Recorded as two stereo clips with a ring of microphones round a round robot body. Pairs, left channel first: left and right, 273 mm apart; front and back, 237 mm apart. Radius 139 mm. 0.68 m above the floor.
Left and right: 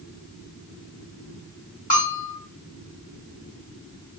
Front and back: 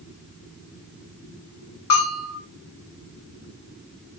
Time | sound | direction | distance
1.9 | a bell | 25° left | 1.3 m